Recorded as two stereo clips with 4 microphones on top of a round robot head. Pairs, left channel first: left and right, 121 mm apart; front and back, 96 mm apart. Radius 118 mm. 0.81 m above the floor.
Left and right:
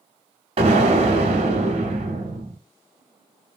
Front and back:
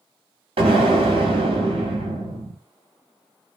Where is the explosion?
140° right, 0.8 m.